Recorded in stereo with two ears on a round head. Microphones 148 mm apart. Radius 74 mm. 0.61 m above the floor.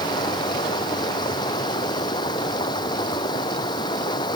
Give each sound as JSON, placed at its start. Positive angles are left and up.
{"t": 0.0, "sound": "running water", "side_deg": 25}